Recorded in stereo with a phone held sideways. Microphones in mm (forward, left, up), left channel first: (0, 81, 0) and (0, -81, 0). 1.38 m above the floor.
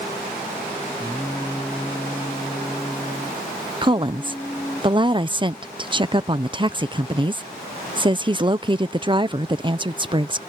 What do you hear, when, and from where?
1.0 s singing: 10° left (ahead or behind)
3.8 s a woman speaking: 30° right (ahead or behind)